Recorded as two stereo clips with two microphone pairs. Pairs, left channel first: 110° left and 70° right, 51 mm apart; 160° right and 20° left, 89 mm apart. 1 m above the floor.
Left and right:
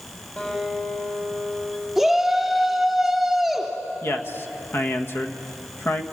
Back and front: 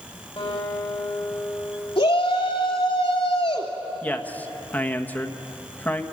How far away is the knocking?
I don't hear knocking.